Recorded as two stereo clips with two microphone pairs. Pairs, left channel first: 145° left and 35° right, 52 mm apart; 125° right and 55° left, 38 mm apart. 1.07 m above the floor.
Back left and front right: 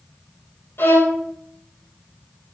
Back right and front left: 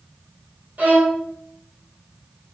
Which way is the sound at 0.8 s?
100° left.